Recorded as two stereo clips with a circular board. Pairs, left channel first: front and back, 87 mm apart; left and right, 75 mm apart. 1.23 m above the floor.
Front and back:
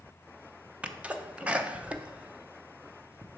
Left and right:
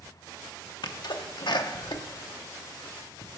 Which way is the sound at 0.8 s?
105° left.